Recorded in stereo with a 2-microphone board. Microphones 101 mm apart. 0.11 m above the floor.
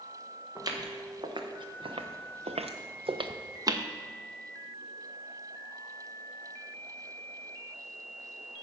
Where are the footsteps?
40° right (ahead or behind), 2.5 m; by 3.9 s 30° right (ahead or behind), 1.3 m.